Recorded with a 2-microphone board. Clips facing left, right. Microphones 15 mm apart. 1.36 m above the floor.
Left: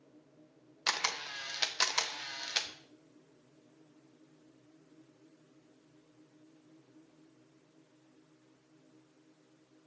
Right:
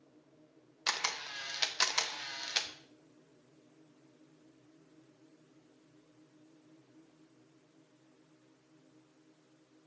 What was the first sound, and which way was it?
A camera shutter, 10° left (ahead or behind).